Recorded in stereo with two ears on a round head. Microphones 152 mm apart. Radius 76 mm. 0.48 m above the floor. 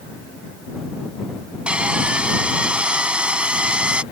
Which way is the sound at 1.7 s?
5° right (ahead or behind).